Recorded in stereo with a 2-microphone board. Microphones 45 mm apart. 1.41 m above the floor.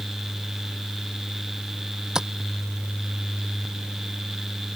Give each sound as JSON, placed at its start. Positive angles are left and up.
{"t": 2.1, "sound": "tapping", "side_deg": -15}